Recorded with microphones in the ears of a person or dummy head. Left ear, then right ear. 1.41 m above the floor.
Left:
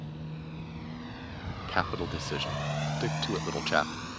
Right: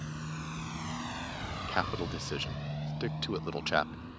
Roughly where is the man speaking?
Centre.